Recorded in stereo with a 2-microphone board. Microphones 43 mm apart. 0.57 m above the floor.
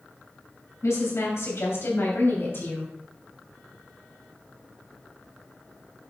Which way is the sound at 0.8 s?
75° left (ahead or behind).